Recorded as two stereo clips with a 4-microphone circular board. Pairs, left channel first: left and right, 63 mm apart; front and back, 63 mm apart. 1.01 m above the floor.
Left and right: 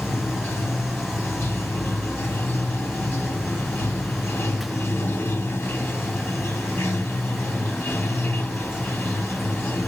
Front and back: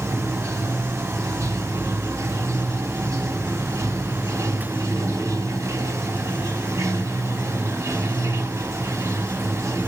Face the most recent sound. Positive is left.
turn(degrees=140)